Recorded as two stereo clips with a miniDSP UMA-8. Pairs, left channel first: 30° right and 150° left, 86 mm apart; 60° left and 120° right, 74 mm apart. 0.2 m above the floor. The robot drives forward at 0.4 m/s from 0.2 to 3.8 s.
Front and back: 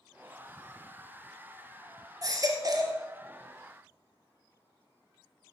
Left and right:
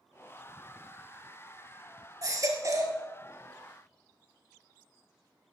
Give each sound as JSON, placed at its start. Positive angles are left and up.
{"t": 2.2, "sound": "a baby crying", "azimuth_deg": -165, "distance_m": 1.6}